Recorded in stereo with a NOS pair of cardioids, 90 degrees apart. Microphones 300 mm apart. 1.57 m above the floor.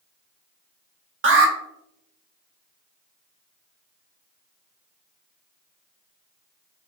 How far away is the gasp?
No gasp in this recording.